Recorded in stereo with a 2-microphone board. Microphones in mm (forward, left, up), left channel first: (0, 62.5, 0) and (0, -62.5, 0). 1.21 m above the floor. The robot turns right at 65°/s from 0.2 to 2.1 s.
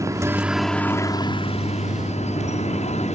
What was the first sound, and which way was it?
A helicopter, 25° right.